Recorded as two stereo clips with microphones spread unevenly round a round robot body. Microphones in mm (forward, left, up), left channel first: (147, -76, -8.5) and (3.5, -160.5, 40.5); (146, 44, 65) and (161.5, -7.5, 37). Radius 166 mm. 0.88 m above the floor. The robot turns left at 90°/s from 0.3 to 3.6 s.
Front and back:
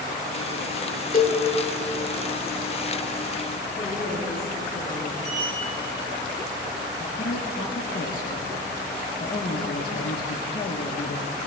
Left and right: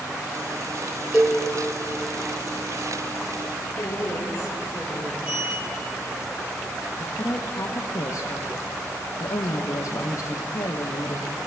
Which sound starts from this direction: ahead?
A cowbell, at 1.1 s.